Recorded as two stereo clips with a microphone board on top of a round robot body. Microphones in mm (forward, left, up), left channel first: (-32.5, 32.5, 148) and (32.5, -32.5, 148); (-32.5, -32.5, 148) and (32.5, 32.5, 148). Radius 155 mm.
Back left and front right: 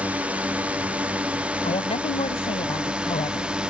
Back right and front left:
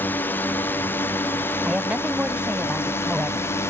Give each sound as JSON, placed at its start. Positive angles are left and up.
{"t": 0.0, "sound": "a drone", "azimuth_deg": -100}
{"t": 1.6, "sound": "a woman speaking", "azimuth_deg": 125}